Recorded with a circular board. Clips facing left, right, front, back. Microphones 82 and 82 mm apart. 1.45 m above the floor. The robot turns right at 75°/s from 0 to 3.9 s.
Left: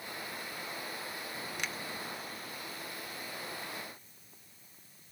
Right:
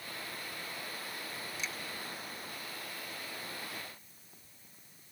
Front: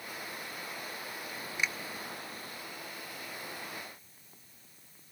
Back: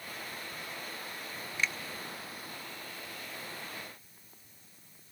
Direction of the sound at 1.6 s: 75° left.